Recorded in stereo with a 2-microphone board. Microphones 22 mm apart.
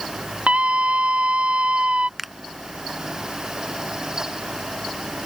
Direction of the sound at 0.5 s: 65° right (ahead or behind).